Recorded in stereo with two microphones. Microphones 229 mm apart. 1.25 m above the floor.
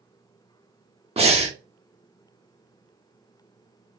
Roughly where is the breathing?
Right.